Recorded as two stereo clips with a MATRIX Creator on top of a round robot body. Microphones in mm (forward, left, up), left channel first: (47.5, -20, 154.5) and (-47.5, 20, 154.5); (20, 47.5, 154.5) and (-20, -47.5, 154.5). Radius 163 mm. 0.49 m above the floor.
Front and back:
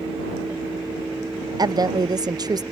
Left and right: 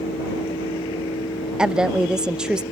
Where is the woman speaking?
170° left.